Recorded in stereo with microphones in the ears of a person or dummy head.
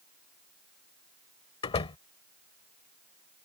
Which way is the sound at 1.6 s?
25° left (ahead or behind).